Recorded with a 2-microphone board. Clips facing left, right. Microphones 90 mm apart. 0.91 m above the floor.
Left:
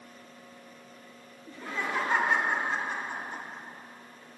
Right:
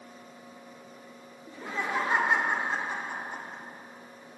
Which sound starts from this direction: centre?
Laughter, at 1.5 s.